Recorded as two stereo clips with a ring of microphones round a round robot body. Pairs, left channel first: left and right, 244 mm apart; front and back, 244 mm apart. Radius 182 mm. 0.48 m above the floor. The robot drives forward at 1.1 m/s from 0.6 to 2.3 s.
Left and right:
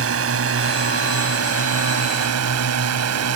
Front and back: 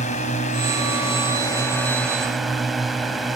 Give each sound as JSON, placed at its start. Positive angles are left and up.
{"t": 0.0, "sound": "a drone", "azimuth_deg": -70}